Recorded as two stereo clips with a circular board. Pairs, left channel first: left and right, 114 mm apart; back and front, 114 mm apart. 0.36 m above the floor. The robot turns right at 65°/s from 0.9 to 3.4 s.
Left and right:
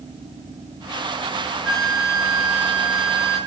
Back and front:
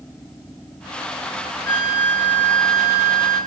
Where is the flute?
165° right, 1.7 m; by 3.4 s 50° right, 1.7 m.